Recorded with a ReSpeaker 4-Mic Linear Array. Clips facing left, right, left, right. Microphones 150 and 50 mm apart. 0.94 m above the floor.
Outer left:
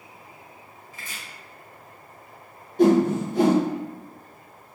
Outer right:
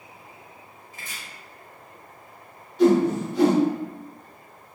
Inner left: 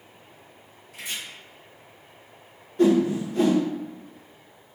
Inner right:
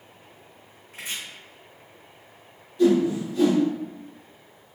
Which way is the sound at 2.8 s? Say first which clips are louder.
Even, even; 50° left (ahead or behind).